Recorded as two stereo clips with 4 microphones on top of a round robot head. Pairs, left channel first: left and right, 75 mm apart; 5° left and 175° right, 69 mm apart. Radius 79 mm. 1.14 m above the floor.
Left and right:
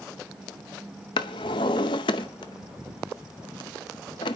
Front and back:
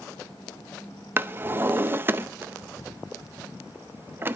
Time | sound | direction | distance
1.2 | a drawer | 120° left | 0.6 m